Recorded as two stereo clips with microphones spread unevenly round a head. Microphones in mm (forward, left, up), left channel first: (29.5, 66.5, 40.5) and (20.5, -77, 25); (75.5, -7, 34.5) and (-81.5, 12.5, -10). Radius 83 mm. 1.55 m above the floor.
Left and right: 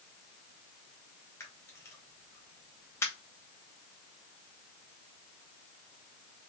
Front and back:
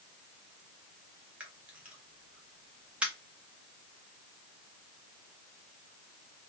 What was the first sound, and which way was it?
A camera shutter, 65° left.